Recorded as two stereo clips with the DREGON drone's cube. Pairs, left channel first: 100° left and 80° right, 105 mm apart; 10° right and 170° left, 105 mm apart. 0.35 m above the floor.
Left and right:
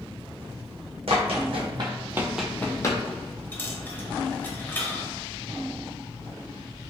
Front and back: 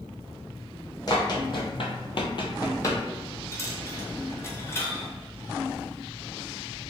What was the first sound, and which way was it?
Running footsteps, 60° right.